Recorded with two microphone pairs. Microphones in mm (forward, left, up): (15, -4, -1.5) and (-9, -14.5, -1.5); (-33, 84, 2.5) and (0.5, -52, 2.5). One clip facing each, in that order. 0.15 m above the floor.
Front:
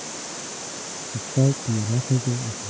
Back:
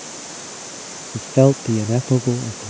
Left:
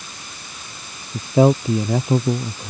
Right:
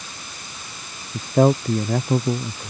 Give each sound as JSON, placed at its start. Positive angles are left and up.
{"t": 1.1, "sound": "a man speaking", "azimuth_deg": -175}